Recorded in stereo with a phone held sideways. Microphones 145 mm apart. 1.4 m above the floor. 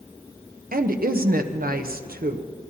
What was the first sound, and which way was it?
A woman speaking, 75° right (ahead or behind).